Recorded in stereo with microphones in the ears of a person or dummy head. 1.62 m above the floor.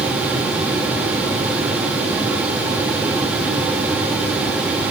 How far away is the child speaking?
I don't hear a child speaking.